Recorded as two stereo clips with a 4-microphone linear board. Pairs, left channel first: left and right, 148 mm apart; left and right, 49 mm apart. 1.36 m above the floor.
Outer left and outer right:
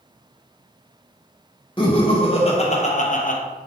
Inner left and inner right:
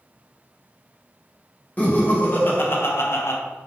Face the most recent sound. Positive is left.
turn(degrees=65)  # may be behind; listen again after turning